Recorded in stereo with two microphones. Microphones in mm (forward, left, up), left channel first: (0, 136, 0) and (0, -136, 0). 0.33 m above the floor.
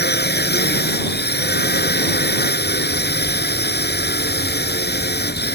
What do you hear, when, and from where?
0.0 s a drone: 35° left (ahead or behind)